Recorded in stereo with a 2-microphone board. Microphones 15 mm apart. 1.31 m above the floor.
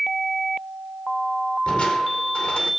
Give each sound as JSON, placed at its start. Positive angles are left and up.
{"t": 1.7, "sound": "crushing", "side_deg": 80, "distance_m": 4.0}